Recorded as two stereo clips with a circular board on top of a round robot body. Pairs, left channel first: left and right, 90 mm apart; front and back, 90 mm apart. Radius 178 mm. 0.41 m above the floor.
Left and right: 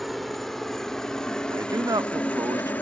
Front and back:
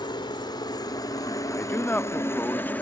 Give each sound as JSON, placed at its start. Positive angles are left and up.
{"t": 0.0, "sound": "a helicopter", "azimuth_deg": 0}
{"t": 1.5, "sound": "a man speaking", "azimuth_deg": -65}